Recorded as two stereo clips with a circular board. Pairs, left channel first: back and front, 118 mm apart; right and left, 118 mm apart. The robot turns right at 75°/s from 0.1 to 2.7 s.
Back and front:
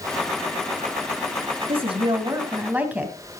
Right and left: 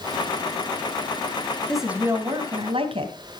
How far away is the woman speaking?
About 2.5 m.